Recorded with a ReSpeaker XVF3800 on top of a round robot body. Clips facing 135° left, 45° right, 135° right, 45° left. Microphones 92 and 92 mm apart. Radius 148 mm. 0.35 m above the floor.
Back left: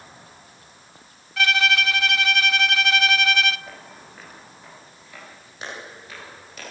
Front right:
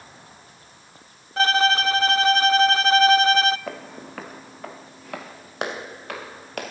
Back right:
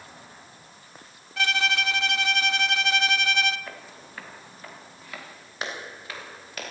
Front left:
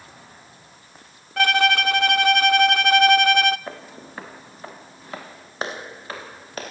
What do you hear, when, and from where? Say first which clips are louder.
1.4 s a violin: front right 3 dB, front left 8 dB; 10° left, 0.5 m
3.7 s footsteps: front right 7 dB, front left 5 dB; 20° right, 1.2 m; by 6.7 s 15° right, 4 m